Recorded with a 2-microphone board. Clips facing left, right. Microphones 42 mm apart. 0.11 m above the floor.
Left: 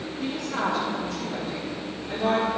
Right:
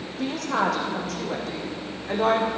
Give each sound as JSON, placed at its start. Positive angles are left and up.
{"t": 0.2, "sound": "a woman speaking", "side_deg": -75, "distance_m": 5.5}